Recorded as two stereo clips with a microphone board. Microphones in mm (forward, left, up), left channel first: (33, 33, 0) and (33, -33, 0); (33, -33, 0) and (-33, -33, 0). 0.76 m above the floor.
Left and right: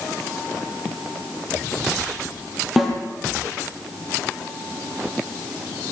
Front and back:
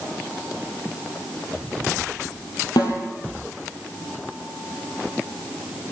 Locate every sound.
2.8 s a snare drum: 5° right, 5.5 m